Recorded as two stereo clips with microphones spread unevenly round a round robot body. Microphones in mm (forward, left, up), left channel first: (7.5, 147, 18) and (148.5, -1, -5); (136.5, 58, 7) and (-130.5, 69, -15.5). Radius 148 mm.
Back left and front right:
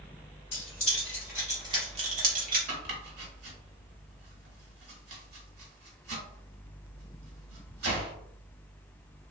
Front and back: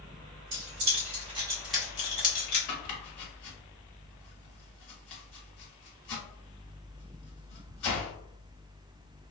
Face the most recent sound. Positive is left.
turn(degrees=-40)